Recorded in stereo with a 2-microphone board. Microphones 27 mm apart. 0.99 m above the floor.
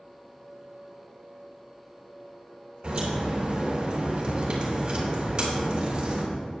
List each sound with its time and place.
2.8 s a crack: 30° right (ahead or behind), 4 m